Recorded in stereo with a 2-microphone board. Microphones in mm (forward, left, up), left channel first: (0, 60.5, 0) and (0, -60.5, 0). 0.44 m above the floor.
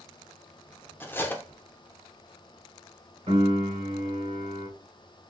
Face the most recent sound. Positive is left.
turn(degrees=-55)  # may be behind; listen again after turning